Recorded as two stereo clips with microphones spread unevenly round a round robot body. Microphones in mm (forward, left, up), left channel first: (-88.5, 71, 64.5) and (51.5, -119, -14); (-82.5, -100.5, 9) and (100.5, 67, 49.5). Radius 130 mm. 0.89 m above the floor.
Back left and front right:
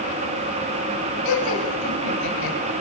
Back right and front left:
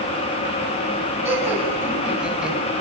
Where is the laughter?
125° left, 7 m; by 2.6 s 130° left, 6.5 m.